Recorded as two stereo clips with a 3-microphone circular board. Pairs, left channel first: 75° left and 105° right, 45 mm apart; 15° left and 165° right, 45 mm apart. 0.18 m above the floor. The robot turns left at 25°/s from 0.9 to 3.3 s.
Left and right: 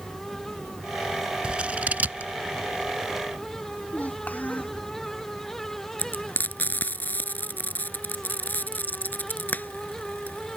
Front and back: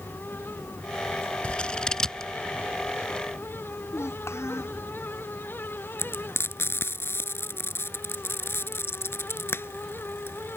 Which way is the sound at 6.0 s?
30° left.